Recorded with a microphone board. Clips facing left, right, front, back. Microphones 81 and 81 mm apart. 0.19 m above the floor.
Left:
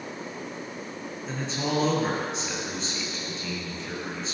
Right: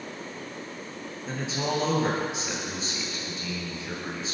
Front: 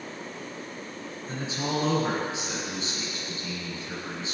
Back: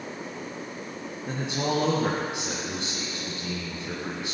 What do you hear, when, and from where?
1.3 s a man speaking: 175° right, 4.5 m